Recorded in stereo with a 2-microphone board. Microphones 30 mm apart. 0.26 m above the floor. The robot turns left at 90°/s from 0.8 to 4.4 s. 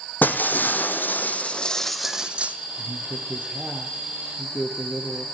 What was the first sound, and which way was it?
Breaking glass, 105° left.